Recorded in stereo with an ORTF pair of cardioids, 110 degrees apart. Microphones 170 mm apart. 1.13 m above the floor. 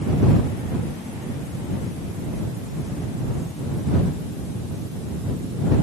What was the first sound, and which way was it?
Only background noise.